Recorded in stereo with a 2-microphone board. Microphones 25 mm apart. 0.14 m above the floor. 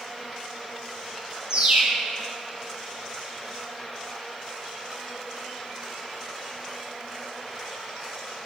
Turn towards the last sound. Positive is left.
turn(degrees=-45)  # may be behind; listen again after turning